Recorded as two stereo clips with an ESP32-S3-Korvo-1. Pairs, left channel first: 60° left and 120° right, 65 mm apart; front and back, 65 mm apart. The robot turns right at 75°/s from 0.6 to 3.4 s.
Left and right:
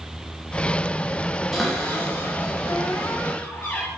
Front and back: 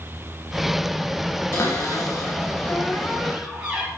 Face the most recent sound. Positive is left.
turn(degrees=110)